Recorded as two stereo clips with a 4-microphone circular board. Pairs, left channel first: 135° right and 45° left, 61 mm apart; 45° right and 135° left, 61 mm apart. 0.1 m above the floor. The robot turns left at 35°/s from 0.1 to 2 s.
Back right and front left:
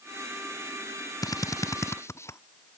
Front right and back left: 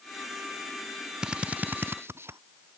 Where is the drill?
150° right; by 2.4 s 175° right.